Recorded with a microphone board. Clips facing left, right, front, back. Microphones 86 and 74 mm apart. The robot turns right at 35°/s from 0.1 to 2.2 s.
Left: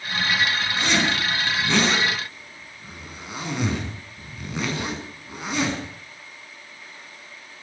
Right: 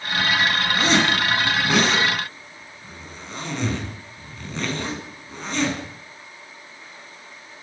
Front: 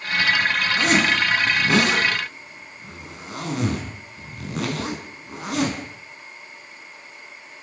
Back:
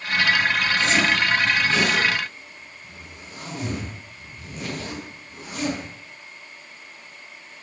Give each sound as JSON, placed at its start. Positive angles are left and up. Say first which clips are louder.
{"t": 0.8, "sound": "a zipper", "louder": "right 4 dB, front 3 dB", "azimuth_deg": -40, "distance_m": 6.5}